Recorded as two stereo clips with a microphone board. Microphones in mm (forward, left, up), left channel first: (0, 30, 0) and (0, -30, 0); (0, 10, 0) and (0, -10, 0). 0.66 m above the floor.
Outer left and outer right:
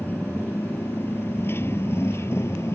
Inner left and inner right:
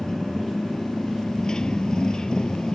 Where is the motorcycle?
30° left (ahead or behind); by 2.8 s 45° left (ahead or behind).